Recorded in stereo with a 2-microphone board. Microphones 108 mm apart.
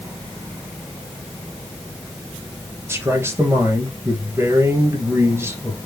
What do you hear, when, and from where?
2.9 s a man speaking: 25° right (ahead or behind), 2.5 m